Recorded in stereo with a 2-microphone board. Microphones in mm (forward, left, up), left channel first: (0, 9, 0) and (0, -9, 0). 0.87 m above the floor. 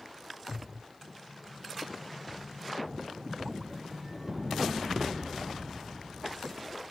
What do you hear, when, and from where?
1.0 s an explosion: 30° right (ahead or behind), 2 m